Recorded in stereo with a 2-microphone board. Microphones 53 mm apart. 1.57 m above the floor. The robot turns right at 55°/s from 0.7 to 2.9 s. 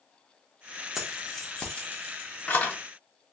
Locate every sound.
0.9 s keys jangling: centre (ahead or behind), 0.9 m; by 2.8 s 35° left (ahead or behind), 0.9 m